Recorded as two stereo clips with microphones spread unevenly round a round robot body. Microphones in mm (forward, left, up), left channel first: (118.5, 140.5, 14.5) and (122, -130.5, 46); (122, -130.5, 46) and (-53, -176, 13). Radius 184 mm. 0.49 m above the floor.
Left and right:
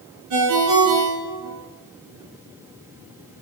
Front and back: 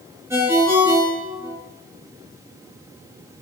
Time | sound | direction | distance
0.3 | a ringtone | 90° right | 5 m